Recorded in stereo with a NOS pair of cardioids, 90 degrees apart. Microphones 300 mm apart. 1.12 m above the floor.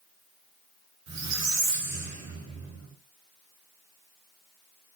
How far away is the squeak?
About 1.3 m.